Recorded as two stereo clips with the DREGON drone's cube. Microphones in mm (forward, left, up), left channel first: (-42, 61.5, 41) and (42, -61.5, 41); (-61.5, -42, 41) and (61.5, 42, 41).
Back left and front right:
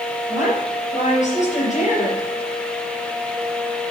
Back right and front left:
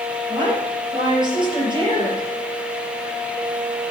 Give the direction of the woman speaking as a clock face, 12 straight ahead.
9 o'clock.